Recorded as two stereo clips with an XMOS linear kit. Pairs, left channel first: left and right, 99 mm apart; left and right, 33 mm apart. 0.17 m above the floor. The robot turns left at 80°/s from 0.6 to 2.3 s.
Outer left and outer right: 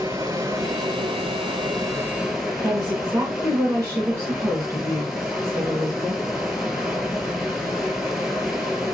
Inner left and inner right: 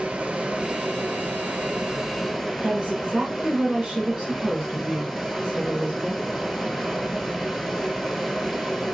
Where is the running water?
40° right, 0.8 m; by 8.9 s 175° right, 0.8 m.